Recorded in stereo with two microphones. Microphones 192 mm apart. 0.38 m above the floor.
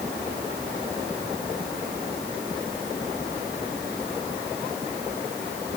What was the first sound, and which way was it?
Only background noise.